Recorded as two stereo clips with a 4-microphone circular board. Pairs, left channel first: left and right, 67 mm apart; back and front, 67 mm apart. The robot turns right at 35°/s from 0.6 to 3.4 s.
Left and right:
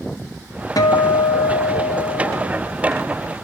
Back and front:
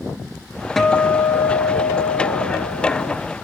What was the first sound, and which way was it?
A guitar, 95° left.